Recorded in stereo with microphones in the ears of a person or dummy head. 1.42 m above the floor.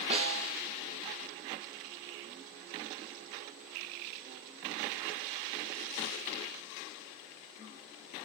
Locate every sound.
0.1 s a snare drum: 30° right (ahead or behind), 0.7 m